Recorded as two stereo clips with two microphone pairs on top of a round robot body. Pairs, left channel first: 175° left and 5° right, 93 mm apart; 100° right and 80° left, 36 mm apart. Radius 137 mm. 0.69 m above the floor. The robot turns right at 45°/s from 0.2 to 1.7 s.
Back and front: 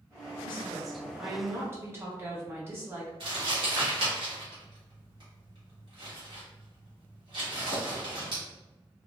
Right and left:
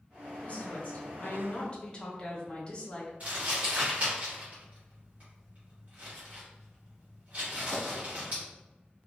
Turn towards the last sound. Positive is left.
turn(degrees=30)